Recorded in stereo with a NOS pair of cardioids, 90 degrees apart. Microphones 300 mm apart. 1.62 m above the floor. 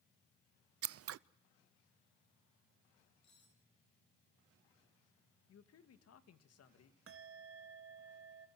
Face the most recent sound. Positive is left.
turn(degrees=-45)